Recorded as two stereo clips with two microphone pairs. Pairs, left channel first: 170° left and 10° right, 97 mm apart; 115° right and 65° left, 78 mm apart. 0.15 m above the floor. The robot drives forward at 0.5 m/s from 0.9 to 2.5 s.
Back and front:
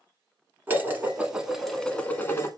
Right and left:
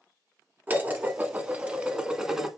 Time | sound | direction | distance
0.7 | dishes clattering | 40° left | 0.9 m